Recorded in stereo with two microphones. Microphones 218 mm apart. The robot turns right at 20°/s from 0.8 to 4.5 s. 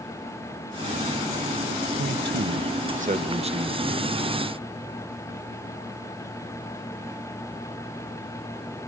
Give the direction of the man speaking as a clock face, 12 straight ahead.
2 o'clock.